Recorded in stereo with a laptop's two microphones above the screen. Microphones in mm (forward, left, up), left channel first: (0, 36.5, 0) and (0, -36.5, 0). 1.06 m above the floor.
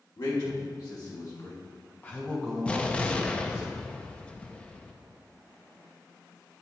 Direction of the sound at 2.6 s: 15° left (ahead or behind).